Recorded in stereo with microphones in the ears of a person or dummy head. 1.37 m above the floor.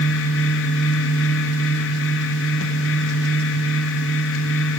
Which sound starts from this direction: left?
A fan, at 0.0 s.